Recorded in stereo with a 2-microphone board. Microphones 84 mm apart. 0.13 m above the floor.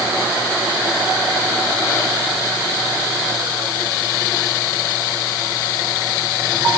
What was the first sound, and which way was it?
Only background noise.